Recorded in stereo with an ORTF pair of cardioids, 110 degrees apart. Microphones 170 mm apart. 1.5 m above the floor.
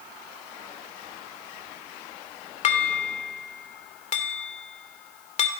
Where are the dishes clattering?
45° left, 3 m.